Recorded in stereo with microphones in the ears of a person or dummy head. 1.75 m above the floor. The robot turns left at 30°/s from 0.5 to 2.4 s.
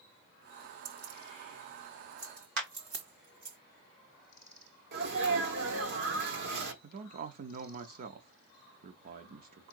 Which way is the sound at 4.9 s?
55° right (ahead or behind).